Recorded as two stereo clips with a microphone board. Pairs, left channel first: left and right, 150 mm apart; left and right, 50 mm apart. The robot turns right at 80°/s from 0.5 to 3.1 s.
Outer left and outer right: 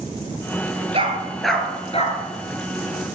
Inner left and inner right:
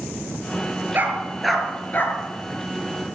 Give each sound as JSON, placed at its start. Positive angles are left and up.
{"t": 0.9, "sound": "a dog barking", "side_deg": -40, "distance_m": 2.5}